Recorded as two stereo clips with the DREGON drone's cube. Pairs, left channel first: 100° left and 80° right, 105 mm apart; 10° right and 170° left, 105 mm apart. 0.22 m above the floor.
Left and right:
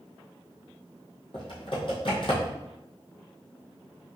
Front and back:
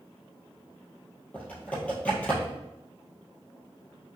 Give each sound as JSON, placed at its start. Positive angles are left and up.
{"t": 1.3, "sound": "typing on a keyboard", "azimuth_deg": 65, "distance_m": 2.5}